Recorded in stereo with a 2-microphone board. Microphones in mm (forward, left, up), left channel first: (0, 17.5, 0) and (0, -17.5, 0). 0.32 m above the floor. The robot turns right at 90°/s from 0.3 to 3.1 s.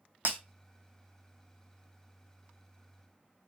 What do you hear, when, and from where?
0.2 s breaking glass: 70° right (ahead or behind), 0.8 m